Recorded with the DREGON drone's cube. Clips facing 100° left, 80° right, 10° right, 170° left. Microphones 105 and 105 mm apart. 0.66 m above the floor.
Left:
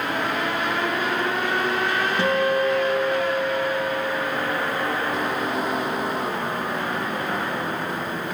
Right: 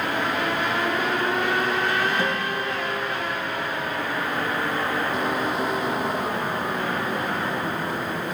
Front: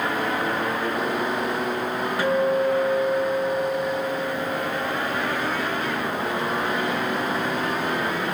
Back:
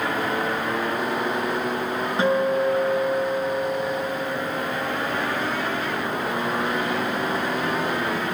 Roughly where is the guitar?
Left.